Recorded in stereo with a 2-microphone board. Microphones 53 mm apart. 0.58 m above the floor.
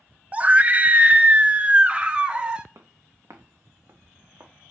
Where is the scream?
25° right (ahead or behind), 0.8 m; by 2.6 s 20° right (ahead or behind), 1.8 m.